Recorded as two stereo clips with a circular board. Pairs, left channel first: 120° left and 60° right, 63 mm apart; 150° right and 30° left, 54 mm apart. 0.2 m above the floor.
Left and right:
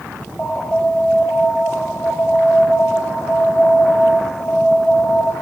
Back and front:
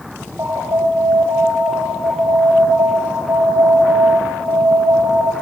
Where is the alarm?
65° left, 7.5 m.